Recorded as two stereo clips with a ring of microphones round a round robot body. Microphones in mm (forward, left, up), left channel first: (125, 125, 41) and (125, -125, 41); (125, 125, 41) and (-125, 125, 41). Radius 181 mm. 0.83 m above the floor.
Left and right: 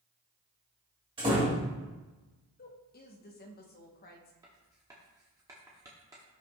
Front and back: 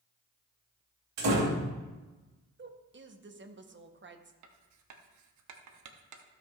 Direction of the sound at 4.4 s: 170° right.